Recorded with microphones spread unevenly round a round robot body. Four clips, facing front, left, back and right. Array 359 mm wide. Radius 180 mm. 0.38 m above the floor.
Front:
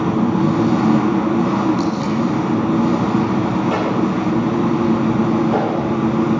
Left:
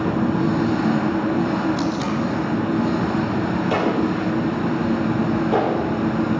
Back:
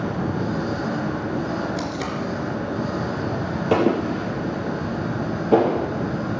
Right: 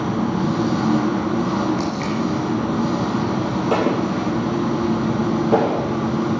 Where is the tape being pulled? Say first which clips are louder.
Even, front 8 dB; 165° left, 3 m.